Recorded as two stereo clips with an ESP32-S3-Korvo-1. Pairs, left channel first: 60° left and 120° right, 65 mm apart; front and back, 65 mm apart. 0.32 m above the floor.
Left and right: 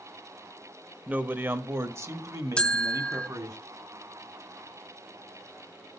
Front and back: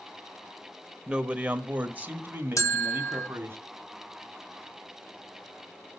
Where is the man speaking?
130° right, 1.0 m.